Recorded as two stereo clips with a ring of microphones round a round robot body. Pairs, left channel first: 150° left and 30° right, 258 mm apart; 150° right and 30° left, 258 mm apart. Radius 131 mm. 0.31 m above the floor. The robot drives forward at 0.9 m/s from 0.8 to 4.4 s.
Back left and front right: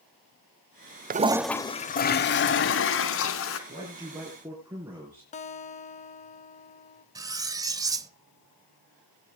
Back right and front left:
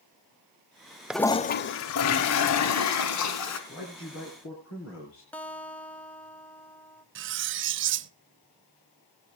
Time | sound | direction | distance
1.1 | a toilet flushing | 55° right | 0.5 m
3.7 | a man speaking | 100° right | 4 m
5.3 | a guitar | 135° left | 0.8 m
7.2 | cutlery clinking | 40° left | 0.5 m